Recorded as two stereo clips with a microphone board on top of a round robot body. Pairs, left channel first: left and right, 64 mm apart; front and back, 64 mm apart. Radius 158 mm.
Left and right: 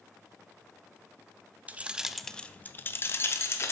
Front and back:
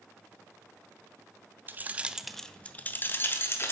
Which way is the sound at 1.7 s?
145° right.